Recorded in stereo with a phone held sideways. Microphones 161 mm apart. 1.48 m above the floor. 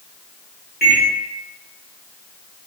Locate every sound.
0.8 s a microwave: 70° left (ahead or behind), 1.0 m